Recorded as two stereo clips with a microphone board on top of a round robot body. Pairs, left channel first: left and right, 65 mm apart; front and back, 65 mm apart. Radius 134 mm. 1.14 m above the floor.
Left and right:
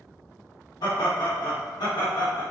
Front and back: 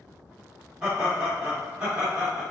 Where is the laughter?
105° left, 1.6 m.